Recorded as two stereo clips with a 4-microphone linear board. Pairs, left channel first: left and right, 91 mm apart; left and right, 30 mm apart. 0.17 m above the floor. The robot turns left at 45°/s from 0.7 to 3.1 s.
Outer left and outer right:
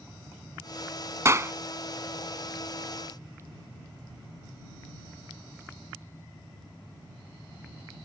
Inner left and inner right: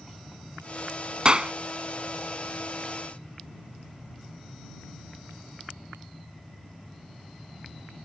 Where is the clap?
35° right (ahead or behind); by 1.5 s 30° right (ahead or behind).